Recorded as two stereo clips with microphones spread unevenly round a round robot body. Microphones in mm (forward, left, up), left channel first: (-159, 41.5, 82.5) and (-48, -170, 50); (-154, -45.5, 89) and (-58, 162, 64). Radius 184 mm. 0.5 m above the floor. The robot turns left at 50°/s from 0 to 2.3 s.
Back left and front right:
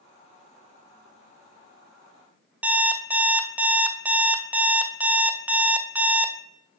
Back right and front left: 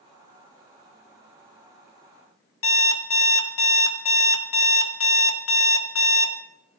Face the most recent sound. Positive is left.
turn(degrees=-140)